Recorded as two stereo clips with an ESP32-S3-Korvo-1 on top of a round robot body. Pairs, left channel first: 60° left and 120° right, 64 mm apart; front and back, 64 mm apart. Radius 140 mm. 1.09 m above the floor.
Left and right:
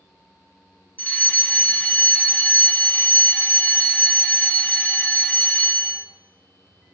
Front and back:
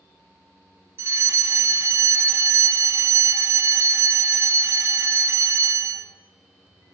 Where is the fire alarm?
125° left, 4 m.